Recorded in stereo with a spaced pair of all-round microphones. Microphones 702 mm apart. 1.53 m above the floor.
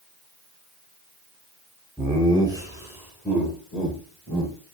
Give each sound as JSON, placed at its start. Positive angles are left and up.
{"t": 2.0, "sound": "laughter", "side_deg": 0, "distance_m": 5.0}